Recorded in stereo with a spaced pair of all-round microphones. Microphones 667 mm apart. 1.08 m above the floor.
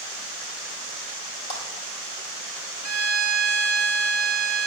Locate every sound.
1.5 s a clap: 70° left (ahead or behind), 6 m
2.8 s a violin: 25° right (ahead or behind), 2.5 m